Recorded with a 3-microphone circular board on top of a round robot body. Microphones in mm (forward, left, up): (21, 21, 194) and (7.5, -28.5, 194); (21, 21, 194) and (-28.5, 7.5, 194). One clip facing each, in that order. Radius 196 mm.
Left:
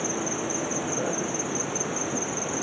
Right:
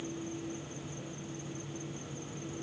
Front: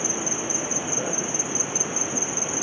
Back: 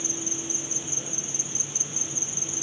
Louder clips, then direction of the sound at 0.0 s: Left 10 dB, front 7 dB; 60° left.